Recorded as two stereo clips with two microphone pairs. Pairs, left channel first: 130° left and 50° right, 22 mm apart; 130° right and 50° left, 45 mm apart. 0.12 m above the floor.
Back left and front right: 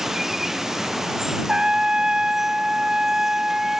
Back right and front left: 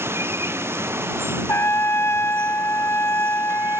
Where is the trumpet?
105° right.